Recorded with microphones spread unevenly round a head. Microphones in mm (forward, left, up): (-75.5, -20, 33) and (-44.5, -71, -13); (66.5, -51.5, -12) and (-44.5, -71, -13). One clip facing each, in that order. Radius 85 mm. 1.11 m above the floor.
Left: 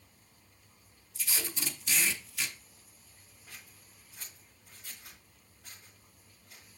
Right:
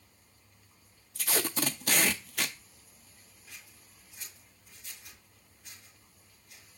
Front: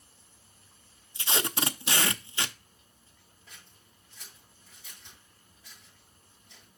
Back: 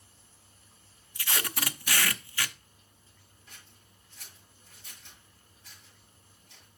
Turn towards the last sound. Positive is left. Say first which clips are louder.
# left 1 dB, even
turn(degrees=65)